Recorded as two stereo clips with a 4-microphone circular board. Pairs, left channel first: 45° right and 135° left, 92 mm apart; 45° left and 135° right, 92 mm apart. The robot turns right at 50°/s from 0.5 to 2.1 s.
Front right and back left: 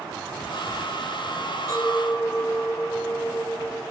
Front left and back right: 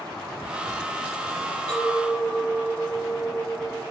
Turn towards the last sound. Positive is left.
turn(degrees=-75)